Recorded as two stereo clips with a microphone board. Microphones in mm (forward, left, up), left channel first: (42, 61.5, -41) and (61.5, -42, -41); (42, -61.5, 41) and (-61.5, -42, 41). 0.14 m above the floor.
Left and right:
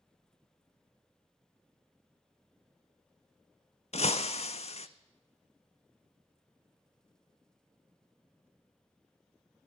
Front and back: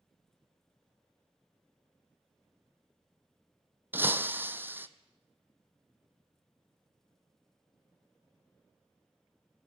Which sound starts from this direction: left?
Breaking glass, at 3.9 s.